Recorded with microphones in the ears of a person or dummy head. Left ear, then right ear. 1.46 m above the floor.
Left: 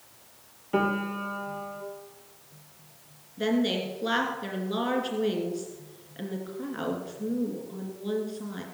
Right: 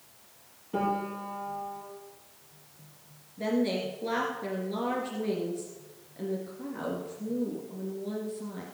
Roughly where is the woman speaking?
Left.